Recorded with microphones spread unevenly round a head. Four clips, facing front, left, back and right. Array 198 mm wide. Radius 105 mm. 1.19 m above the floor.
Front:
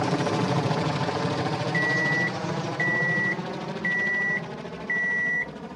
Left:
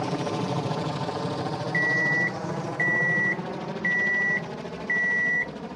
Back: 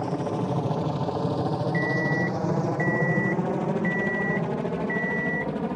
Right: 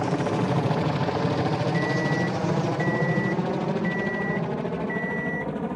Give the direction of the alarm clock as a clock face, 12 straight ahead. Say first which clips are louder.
Right 2 dB, back 1 dB; 11 o'clock.